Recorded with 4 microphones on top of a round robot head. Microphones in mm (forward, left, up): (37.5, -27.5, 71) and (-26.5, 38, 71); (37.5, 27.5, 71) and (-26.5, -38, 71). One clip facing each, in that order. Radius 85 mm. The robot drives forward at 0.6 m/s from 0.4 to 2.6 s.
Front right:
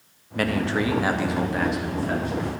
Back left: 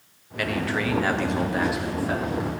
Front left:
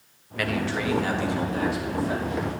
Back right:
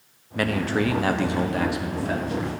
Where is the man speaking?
85° right, 0.7 m; by 2.5 s 155° right, 1.4 m.